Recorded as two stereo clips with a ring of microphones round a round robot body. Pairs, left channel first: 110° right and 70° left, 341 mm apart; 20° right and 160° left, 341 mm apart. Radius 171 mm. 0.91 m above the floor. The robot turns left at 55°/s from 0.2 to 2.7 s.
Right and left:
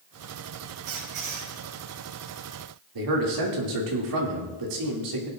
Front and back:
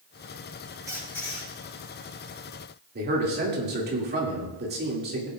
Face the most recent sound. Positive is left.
turn(degrees=95)